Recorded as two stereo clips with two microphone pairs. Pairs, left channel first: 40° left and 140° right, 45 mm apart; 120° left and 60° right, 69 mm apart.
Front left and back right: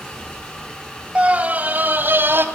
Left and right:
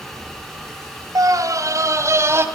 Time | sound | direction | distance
1.1 | a scream | 80° right | 2.5 m